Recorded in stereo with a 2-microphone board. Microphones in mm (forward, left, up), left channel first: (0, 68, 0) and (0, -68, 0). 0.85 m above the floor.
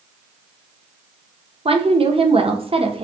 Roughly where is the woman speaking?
Right.